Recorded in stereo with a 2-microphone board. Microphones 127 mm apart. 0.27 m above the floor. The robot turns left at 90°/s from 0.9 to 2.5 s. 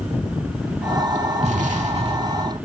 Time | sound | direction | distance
1.4 | an explosion | 65° right | 0.6 m